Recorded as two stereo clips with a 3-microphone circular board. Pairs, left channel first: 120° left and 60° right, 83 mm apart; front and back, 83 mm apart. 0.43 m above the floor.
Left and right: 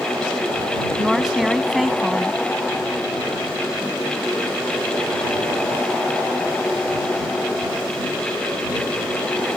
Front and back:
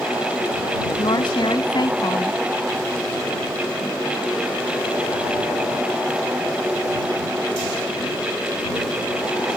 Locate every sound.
1.0 s a woman speaking: 25° left